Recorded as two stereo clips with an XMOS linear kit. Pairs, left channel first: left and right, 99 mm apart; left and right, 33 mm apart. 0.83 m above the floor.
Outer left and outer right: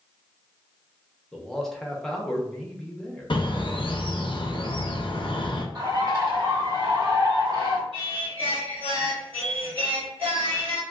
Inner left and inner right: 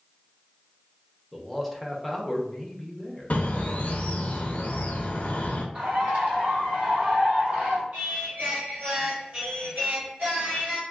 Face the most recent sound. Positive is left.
turn(degrees=-65)  # may be behind; listen again after turning